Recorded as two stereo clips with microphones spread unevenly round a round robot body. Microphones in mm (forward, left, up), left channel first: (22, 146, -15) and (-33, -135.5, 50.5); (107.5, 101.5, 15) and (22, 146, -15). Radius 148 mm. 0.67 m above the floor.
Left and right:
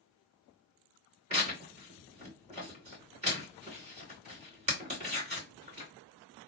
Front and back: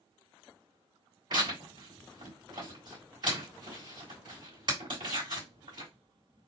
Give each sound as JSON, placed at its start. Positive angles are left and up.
{"t": 1.3, "sound": "tearing paper", "azimuth_deg": -175, "distance_m": 2.5}